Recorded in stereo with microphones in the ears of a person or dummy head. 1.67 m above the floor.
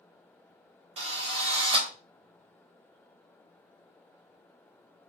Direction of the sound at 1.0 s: 35° right (ahead or behind).